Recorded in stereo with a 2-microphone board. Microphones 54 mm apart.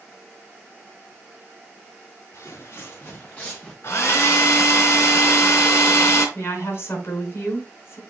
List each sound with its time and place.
2.3 s footsteps: 60° left (ahead or behind), 2.0 m; by 3.7 s 20° left (ahead or behind), 2.5 m
3.8 s a hair dryer: 50° left (ahead or behind), 4 m
6.3 s a woman speaking: 45° left (ahead or behind), 3 m